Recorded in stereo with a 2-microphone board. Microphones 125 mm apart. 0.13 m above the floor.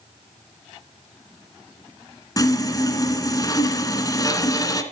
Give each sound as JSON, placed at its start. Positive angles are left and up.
{"t": 2.4, "sound": "sawing", "side_deg": 30, "distance_m": 1.8}